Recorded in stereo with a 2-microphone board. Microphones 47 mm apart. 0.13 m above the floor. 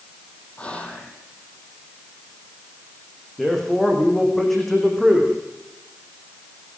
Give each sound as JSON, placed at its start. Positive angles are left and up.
{"t": 0.6, "sound": "whispering", "side_deg": 25, "distance_m": 5.5}
{"t": 3.4, "sound": "a man speaking", "side_deg": 5, "distance_m": 8.5}